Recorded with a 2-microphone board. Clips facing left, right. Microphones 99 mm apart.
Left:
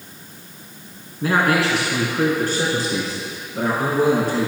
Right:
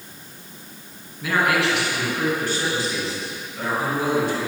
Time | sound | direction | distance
1.2 | a man speaking | 40° left (ahead or behind) | 2.5 m